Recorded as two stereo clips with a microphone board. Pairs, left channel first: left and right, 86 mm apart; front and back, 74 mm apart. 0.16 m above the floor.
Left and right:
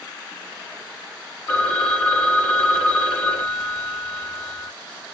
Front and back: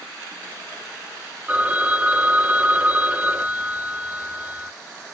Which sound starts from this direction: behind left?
A phone ringing, at 1.5 s.